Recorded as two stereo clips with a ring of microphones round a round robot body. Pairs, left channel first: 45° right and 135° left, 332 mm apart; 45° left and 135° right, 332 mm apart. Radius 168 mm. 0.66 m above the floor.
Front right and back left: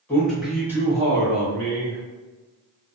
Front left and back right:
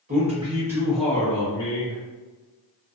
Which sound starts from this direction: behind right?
A man speaking, at 0.1 s.